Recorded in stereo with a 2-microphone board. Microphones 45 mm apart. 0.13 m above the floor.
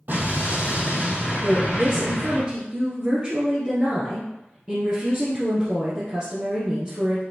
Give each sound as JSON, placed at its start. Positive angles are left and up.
{"t": 0.1, "sound": "an explosion", "side_deg": -45, "distance_m": 4.0}
{"t": 1.4, "sound": "a woman speaking", "side_deg": -25, "distance_m": 2.0}